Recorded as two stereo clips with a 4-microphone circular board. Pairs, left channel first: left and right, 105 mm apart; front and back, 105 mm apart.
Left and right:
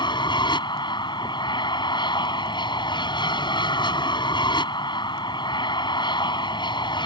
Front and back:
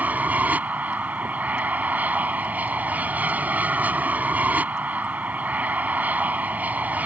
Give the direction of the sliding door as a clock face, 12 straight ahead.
No sliding door in this recording.